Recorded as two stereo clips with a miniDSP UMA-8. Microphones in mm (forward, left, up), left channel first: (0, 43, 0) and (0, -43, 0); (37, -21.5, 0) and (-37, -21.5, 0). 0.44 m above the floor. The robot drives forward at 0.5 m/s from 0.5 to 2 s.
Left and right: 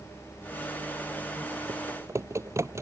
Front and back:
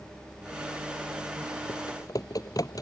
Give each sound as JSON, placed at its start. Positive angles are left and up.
{"t": 1.7, "sound": "typing on a keyboard", "azimuth_deg": -35}